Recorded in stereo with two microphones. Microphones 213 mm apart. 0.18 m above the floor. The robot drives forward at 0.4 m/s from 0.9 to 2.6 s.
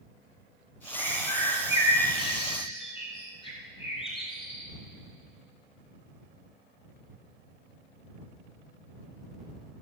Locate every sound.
0.9 s a bird: 30° left (ahead or behind), 8 m; by 4.7 s 25° left (ahead or behind), 8.5 m